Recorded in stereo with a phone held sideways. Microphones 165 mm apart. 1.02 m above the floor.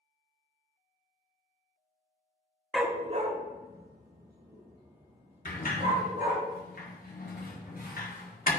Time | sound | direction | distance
2.7 | a dog barking | centre (ahead or behind) | 0.5 m
5.5 | a sliding door | 65° left (ahead or behind) | 1.1 m